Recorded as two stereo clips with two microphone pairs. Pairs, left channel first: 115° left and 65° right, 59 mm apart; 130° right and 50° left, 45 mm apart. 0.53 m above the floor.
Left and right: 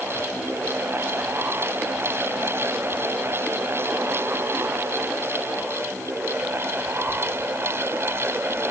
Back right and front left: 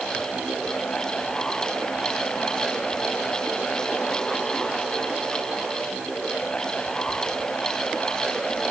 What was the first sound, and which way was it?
Only background noise.